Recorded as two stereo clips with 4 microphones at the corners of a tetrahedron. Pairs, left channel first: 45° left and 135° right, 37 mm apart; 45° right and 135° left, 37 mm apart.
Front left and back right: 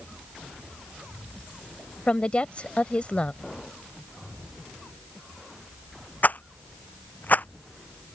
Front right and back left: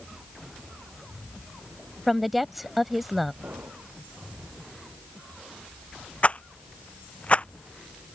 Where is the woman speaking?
50° left.